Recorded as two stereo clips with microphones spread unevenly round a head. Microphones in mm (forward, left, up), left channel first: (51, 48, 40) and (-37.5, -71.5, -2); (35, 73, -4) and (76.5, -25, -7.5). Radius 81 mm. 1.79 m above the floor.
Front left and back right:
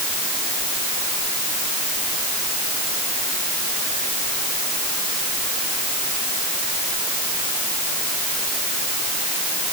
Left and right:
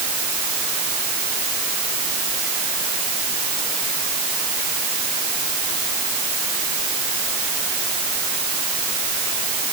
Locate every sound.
Only background noise.